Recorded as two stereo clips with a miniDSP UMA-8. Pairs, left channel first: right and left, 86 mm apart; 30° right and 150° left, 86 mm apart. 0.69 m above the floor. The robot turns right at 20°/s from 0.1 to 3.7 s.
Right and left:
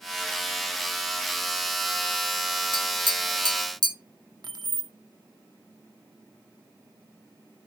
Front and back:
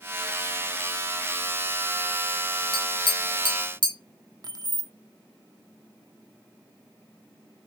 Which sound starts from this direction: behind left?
Keys jangling, at 4.4 s.